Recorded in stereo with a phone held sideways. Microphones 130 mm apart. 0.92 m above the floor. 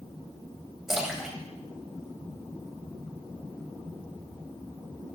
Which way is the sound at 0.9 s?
5° right (ahead or behind).